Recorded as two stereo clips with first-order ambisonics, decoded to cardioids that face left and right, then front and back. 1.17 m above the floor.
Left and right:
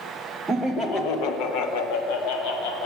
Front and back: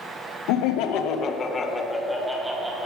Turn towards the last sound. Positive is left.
turn(degrees=95)